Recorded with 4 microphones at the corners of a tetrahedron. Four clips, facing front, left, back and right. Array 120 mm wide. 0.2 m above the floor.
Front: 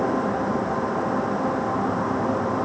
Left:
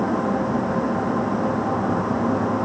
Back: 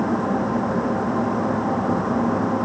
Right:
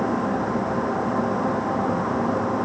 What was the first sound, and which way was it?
Only background noise.